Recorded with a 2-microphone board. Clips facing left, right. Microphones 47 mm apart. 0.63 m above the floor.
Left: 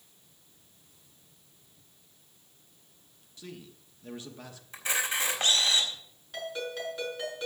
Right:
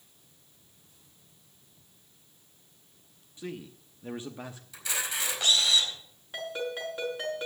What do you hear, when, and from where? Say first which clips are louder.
3.4 s a man speaking: right 6 dB; 25° right (ahead or behind), 0.8 m
4.7 s a camera shutter: left 4 dB; 35° left (ahead or behind), 4 m
6.3 s a ringtone: right 1 dB; 20° right (ahead or behind), 6 m